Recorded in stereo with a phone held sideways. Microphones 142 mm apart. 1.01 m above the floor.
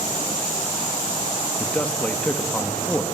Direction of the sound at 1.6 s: 10° left (ahead or behind).